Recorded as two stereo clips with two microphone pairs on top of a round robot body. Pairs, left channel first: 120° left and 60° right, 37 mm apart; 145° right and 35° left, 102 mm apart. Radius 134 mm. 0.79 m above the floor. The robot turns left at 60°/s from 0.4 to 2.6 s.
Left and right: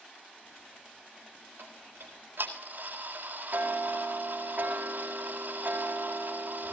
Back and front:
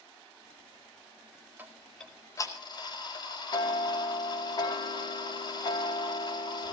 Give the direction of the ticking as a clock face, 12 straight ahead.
1 o'clock.